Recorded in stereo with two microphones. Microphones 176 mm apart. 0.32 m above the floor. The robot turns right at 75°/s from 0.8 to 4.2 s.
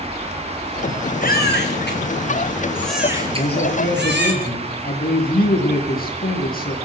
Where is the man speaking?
55° left, 7 m; by 6.8 s 120° left, 7 m.